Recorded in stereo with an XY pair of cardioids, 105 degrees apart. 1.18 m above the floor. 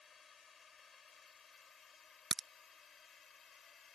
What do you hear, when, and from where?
0.0 s a drone: 40° left; by 4.0 s 45° left
2.3 s a crack: 35° right